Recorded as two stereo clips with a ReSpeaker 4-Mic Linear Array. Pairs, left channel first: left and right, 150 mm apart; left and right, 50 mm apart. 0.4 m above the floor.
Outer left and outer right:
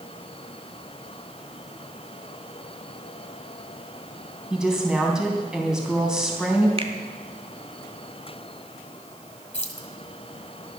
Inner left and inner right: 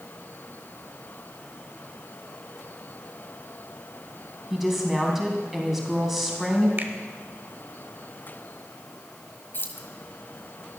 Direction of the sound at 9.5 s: 45° left (ahead or behind).